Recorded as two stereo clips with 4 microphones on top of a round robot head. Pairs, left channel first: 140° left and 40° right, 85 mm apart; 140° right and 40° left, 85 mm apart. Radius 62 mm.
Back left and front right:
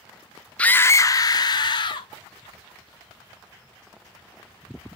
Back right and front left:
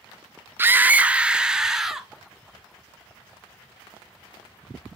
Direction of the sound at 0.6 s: 75° left.